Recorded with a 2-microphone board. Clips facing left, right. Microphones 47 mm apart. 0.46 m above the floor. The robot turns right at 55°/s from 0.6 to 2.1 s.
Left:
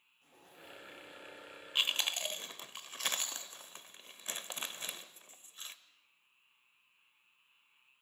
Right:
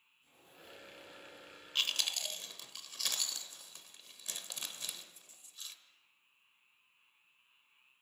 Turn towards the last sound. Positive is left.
turn(degrees=35)  # may be behind; listen again after turning